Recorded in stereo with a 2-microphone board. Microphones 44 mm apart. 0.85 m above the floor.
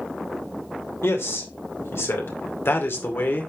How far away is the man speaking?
About 2.5 m.